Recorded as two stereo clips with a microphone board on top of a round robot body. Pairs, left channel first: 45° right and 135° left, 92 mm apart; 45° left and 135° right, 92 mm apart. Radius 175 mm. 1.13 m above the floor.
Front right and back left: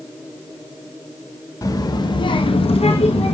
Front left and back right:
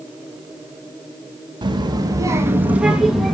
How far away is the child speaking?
About 1.6 m.